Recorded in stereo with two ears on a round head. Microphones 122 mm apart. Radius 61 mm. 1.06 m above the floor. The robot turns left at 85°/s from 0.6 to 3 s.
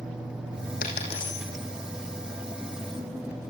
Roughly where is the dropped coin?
Left.